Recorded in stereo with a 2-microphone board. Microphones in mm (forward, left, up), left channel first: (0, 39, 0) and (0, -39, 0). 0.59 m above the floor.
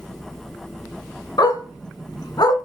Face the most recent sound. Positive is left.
turn(degrees=65)  # may be behind; listen again after turning